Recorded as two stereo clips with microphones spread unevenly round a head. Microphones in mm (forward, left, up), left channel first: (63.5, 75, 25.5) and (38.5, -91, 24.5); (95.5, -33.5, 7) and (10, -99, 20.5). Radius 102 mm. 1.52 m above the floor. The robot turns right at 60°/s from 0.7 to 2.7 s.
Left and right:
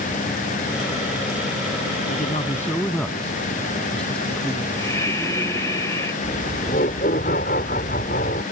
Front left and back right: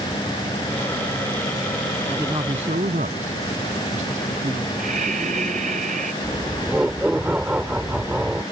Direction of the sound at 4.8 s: 160° left.